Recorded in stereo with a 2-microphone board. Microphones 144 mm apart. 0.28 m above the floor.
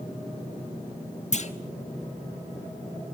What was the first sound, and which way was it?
A clunk, 55° left (ahead or behind).